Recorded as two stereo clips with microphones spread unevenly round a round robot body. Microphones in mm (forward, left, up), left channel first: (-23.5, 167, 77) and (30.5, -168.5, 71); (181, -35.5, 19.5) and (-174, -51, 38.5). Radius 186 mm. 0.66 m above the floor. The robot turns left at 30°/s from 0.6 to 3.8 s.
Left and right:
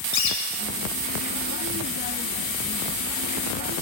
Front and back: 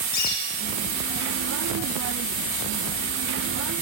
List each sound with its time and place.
0.1 s a bird: 45° left, 7 m; by 0.6 s 40° left, 7 m